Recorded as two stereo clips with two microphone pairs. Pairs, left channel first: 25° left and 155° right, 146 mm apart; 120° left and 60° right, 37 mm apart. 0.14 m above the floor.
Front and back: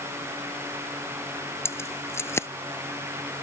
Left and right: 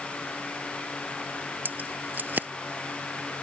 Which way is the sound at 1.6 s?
45° right.